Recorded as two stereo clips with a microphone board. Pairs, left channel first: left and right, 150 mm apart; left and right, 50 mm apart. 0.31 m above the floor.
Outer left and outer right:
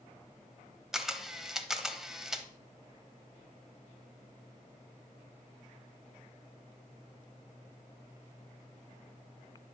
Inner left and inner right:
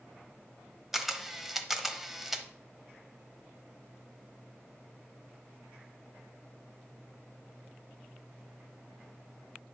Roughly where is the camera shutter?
Centre.